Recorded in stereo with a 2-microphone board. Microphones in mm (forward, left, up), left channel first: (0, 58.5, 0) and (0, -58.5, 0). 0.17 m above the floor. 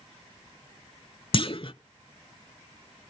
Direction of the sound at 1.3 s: 50° left (ahead or behind).